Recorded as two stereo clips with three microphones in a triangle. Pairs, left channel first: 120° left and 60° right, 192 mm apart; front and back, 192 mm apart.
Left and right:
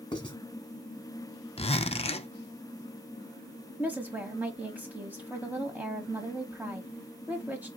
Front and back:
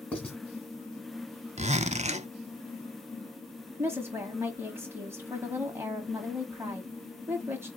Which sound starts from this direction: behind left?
A zipper, at 1.6 s.